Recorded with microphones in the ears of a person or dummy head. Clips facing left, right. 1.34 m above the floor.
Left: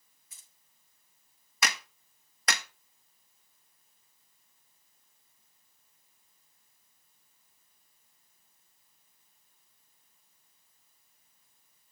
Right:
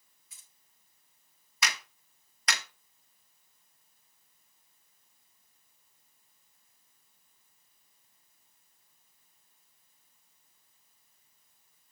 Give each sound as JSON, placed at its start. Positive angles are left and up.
{"t": 0.3, "sound": "keys jangling", "side_deg": 45, "distance_m": 1.9}
{"t": 1.6, "sound": "a clap", "side_deg": 50, "distance_m": 1.2}